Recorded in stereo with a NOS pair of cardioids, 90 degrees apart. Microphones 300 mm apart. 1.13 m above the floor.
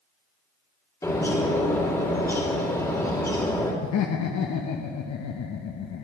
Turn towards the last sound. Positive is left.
turn(degrees=65)